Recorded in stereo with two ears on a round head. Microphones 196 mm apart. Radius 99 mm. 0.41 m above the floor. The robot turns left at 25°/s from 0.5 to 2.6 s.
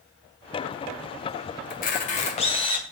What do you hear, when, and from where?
1.7 s a camera shutter: 40° left (ahead or behind), 2.5 m; by 2.9 s 25° left (ahead or behind), 2.5 m